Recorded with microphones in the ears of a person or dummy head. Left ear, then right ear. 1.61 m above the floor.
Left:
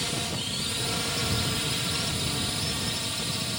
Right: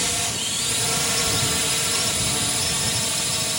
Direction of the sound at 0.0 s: 25° right (ahead or behind).